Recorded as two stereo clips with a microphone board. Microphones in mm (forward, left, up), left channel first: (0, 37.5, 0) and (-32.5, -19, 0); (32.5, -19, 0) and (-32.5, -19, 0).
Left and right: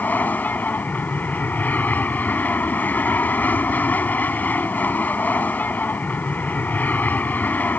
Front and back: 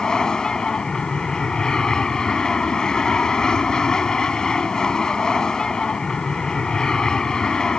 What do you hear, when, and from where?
0.0 s an aircraft: 65° left